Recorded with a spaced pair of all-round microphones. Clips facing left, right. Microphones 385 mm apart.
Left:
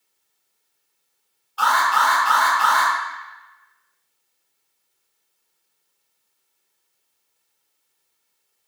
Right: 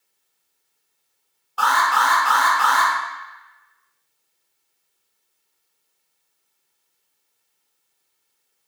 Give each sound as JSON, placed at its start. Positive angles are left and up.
{"t": 1.6, "sound": "an alarm", "side_deg": -65, "distance_m": 0.8}